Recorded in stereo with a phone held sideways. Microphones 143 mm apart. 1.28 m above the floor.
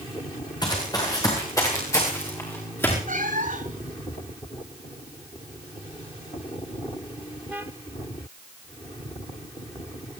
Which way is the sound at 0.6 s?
25° left (ahead or behind).